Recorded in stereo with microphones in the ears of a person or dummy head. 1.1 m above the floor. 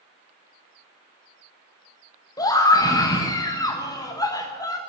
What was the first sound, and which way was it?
A scream, 20° left (ahead or behind).